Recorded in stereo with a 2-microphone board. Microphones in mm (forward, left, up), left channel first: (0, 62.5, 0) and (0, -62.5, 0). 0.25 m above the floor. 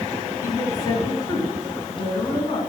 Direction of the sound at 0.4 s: 25° left (ahead or behind).